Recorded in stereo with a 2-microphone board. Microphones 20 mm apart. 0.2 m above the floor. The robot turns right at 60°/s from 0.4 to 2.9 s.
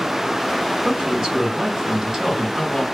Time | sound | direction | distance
0.8 | a man speaking | 135° right | 1.3 m